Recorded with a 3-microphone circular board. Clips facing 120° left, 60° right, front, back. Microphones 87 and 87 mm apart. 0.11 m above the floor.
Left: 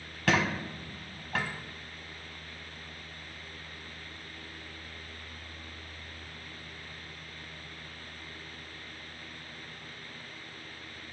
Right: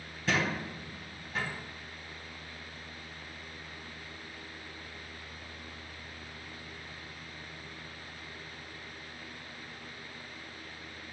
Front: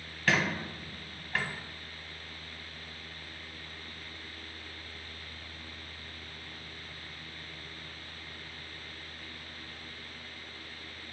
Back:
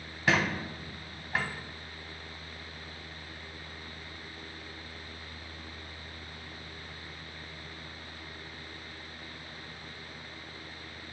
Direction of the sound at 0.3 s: 110° left.